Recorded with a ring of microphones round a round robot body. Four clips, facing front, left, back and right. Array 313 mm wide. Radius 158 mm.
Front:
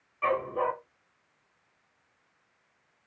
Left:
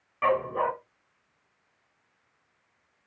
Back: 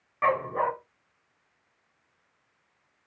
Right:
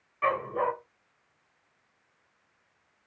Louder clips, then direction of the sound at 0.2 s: Left 2 dB, back 2 dB; 145° left.